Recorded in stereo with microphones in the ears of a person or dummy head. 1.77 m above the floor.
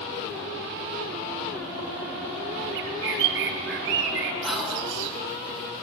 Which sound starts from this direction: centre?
Whispering, at 4.4 s.